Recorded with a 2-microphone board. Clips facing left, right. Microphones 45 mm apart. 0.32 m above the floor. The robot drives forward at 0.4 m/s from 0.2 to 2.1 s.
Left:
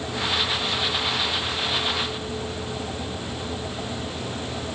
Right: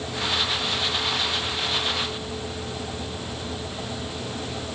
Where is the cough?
I don't hear a cough.